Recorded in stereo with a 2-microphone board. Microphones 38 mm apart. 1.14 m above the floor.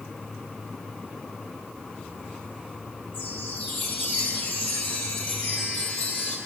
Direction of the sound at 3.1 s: 50° left (ahead or behind).